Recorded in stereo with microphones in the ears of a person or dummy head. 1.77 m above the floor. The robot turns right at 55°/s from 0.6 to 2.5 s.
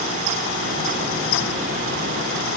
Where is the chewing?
No chewing in this recording.